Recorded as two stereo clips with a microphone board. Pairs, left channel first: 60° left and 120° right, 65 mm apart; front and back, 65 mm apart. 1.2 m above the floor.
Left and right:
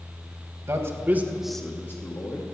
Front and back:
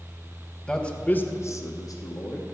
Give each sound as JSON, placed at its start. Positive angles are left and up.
{"t": 0.7, "sound": "a man speaking", "azimuth_deg": -80, "distance_m": 1.4}